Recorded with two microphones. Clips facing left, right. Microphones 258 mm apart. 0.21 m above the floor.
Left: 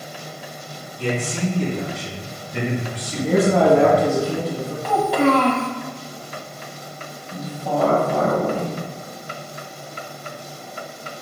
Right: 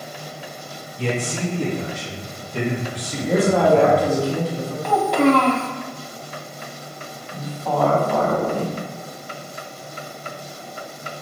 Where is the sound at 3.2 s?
30° left (ahead or behind), 1.2 m.